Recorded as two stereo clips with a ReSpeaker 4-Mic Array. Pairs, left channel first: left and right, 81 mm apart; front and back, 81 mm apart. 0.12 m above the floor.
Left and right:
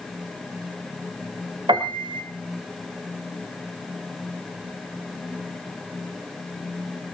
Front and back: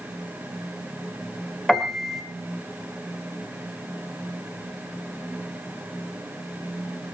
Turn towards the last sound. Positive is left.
turn(degrees=-85)